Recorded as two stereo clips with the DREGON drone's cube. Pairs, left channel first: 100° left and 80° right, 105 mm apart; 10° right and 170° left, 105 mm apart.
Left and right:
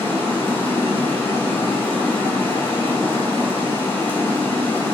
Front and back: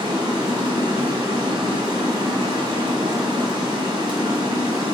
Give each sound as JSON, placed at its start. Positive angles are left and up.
{"t": 0.0, "sound": "running water", "azimuth_deg": 160, "distance_m": 0.9}